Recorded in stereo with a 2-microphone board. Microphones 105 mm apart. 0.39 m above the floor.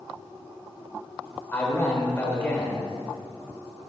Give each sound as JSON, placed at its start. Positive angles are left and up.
{"t": 1.5, "sound": "a man speaking", "side_deg": 20, "distance_m": 1.2}